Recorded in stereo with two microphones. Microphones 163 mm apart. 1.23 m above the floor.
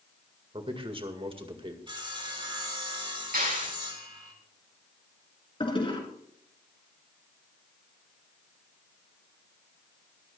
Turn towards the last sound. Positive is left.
turn(degrees=35)  # may be behind; listen again after turning